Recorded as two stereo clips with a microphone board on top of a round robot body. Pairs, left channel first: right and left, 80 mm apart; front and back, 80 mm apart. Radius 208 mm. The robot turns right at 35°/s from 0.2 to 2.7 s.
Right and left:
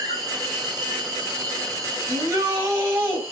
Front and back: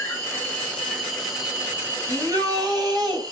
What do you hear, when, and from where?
0.0 s an insect: 55° left, 2.5 m; by 3.3 s 140° left, 2.5 m
2.1 s a shout: 120° left, 3 m; by 3.2 s 145° left, 3 m